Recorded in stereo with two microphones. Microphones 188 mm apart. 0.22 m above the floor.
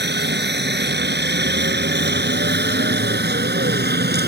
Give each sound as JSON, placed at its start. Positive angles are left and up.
{"t": 0.0, "sound": "a helicopter", "side_deg": -65}